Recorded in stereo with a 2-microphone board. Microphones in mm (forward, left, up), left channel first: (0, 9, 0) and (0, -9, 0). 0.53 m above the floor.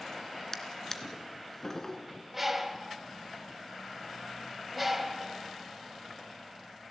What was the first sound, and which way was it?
A drawer, 25° left (ahead or behind).